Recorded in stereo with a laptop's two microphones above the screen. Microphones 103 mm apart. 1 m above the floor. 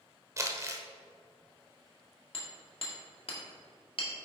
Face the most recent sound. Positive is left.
turn(degrees=60)  # may be behind; listen again after turning